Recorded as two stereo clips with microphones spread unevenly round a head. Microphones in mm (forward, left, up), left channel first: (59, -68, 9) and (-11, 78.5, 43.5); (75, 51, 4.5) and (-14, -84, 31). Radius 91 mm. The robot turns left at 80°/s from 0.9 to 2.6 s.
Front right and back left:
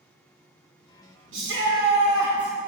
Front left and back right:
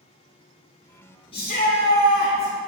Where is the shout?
115° left, 1.5 m; by 2.5 s 20° left, 1.5 m.